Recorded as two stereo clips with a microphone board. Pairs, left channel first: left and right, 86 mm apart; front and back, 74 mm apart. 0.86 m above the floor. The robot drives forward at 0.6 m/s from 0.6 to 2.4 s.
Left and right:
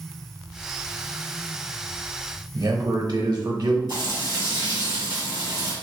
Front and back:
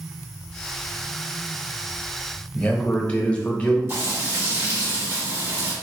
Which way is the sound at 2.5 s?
70° right.